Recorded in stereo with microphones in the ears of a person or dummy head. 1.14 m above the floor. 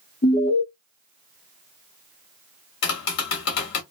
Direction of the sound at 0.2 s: 45° left (ahead or behind).